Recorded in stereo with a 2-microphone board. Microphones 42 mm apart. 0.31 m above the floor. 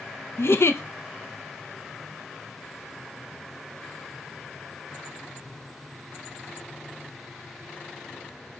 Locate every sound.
0.4 s a giggle: 85° left, 0.5 m